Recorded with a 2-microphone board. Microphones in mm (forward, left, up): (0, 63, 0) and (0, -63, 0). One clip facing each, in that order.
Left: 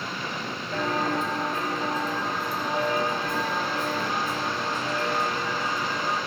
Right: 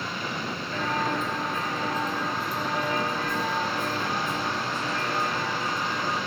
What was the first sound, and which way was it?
Footsteps, 40° left (ahead or behind).